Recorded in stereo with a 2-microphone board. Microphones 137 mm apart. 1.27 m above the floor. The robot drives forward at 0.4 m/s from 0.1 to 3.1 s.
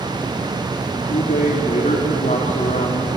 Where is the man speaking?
75° left (ahead or behind), 2.5 m; by 3.1 s 55° left (ahead or behind), 3 m.